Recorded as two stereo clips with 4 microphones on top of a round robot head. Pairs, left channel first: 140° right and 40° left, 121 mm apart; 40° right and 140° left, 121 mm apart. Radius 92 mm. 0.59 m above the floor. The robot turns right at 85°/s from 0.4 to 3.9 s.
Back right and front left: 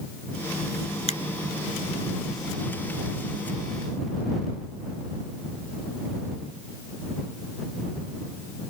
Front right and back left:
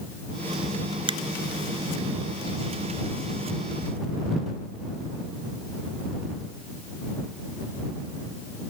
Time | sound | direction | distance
1.1 | a finger snap | 175° right | ?